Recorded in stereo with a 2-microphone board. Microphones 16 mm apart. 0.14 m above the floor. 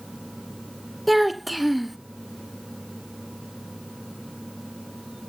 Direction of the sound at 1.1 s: Centre (ahead or behind).